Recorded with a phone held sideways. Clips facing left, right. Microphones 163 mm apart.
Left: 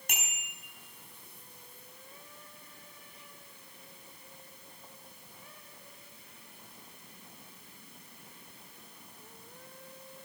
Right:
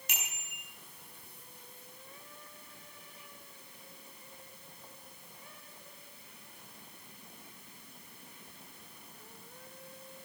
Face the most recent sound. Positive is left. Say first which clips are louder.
# left 4 dB
turn(degrees=55)  # may be behind; listen again after turning